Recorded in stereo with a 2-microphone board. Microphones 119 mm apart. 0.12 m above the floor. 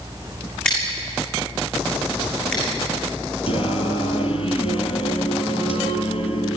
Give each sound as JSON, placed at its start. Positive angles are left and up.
{"t": 0.7, "sound": "scissors", "side_deg": 10, "distance_m": 7.0}
{"t": 3.5, "sound": "singing", "side_deg": 60, "distance_m": 1.7}